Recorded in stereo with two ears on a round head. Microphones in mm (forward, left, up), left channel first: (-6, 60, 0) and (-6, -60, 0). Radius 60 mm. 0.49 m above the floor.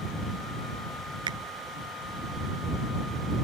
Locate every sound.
1.3 s a finger snap: 35° right (ahead or behind)